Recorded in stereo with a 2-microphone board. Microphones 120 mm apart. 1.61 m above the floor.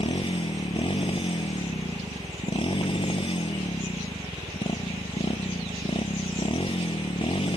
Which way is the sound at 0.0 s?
50° left (ahead or behind).